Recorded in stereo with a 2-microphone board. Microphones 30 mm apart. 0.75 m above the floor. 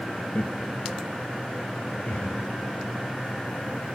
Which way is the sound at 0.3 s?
50° left (ahead or behind).